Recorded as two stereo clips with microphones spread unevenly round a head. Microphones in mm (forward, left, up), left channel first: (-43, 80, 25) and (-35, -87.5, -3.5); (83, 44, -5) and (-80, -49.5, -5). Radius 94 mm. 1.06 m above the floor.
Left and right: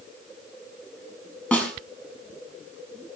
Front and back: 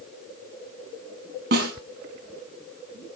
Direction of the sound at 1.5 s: 175° left.